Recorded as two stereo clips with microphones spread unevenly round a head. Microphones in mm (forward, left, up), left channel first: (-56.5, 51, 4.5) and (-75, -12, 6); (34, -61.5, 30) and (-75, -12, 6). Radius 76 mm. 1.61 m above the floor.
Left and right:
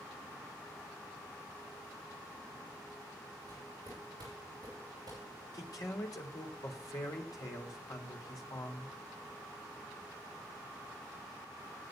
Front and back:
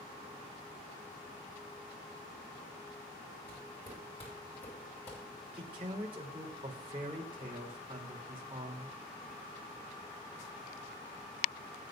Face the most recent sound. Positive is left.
turn(degrees=95)